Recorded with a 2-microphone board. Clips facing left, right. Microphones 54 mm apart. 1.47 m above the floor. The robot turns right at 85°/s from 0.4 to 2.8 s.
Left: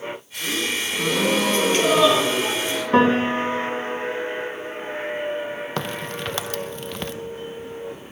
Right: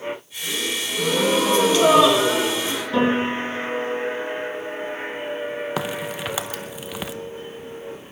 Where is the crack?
10° right (ahead or behind), 0.8 m.